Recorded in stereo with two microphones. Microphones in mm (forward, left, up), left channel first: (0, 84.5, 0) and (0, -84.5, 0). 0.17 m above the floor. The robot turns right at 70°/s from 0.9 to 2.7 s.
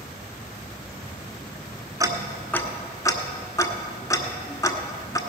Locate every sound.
2.0 s ticking: 20° right (ahead or behind), 1.2 m; by 5.2 s 20° left (ahead or behind), 1.2 m